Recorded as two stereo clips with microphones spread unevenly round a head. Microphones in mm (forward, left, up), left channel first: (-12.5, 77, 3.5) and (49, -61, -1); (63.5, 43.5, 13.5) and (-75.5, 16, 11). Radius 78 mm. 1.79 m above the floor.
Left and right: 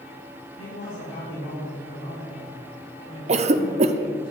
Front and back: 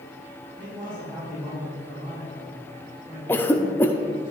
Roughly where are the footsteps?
No footsteps in this recording.